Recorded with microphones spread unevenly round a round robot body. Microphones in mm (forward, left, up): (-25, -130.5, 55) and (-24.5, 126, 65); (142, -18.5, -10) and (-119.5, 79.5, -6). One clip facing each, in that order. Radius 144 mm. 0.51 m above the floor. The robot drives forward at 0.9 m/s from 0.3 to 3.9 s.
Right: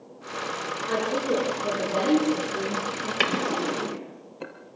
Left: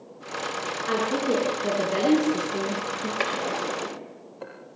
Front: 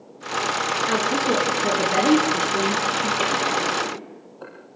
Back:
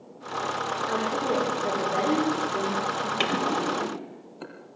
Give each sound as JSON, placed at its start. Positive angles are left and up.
{"t": 0.9, "sound": "a woman speaking", "azimuth_deg": 20, "distance_m": 7.0}
{"t": 3.2, "sound": "a drawer", "azimuth_deg": -140, "distance_m": 3.0}